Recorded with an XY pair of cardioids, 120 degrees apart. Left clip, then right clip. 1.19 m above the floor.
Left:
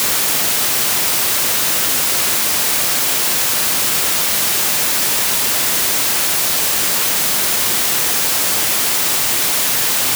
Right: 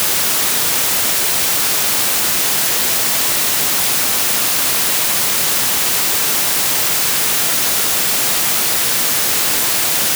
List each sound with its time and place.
Only background noise.